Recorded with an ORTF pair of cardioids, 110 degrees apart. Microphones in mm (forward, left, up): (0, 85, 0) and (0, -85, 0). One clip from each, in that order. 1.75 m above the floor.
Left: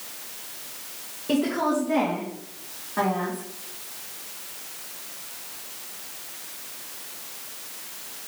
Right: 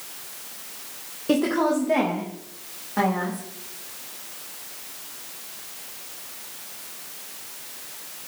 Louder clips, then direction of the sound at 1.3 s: Right 2 dB; 30° right.